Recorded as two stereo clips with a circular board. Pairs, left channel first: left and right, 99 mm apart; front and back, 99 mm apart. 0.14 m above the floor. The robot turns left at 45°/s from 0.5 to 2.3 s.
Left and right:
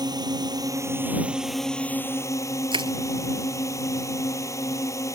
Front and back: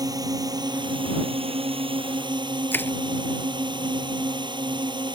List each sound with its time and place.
0.0 s a drone: 130° right; by 5.2 s 145° left
2.7 s crushing: 65° right